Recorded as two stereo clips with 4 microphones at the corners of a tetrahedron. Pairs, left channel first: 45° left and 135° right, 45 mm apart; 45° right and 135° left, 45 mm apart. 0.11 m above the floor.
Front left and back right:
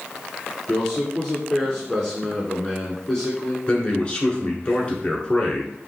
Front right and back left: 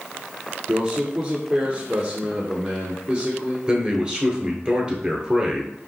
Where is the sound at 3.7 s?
90° left, 1.4 m.